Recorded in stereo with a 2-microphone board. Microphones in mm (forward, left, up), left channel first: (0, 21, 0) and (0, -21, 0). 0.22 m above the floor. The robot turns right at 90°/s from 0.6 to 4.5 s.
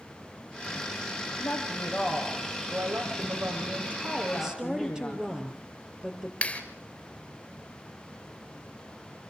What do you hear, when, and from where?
1.4 s a woman speaking: 95° left, 6.5 m; by 5.3 s 15° left, 6.5 m
4.3 s a woman speaking: 5° right (ahead or behind), 4 m; by 6.3 s 20° right (ahead or behind), 4 m
6.4 s a clap: 25° left (ahead or behind), 3 m